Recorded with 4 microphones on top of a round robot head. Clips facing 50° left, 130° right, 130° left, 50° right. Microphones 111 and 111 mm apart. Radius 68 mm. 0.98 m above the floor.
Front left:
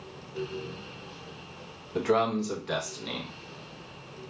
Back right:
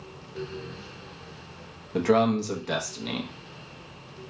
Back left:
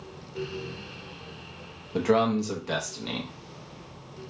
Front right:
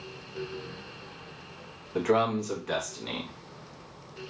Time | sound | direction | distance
1.9 | a man speaking | 170° right | 0.9 m